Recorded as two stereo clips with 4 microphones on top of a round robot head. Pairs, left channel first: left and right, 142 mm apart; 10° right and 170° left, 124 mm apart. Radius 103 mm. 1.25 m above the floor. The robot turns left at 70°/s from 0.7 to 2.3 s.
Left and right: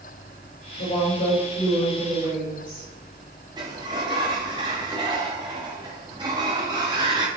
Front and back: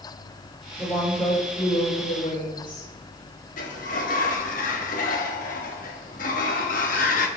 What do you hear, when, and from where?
0.8 s a woman speaking: 75° left, 4.5 m; by 2.9 s 30° right, 4.5 m
3.6 s a sliding door: 20° right, 1.0 m